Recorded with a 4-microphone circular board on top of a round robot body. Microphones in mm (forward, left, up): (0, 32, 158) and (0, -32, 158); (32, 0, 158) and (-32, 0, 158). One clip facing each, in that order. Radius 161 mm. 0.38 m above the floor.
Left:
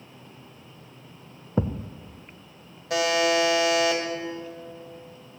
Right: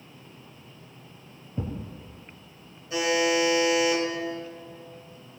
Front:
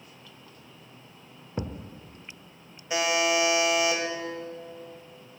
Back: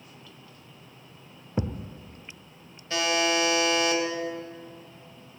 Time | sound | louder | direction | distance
1.6 | a thud | left 7 dB, back 4 dB | 100° left | 0.5 m
2.9 | a buzzer | left 2 dB, even | 75° left | 2.5 m